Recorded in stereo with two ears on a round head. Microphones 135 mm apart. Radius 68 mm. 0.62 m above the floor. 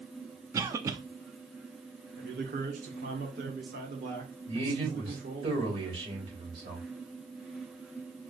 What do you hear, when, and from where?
0.5 s a cough: 20° right (ahead or behind), 0.5 m
2.2 s a man speaking: 60° right (ahead or behind), 2 m
4.5 s a man speaking: 35° right (ahead or behind), 3 m